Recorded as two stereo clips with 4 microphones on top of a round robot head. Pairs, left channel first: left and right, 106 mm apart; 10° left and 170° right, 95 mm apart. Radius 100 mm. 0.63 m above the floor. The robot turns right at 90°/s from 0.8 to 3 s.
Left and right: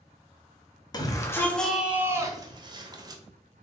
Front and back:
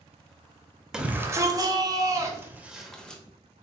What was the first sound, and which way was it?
A shout, 110° left.